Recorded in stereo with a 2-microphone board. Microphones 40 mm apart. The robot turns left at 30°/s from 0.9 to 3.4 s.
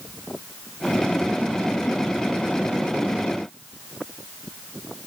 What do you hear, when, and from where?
Only background noise.